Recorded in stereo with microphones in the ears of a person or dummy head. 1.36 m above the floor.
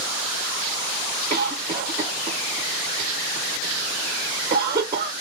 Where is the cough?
20° right (ahead or behind), 0.8 m.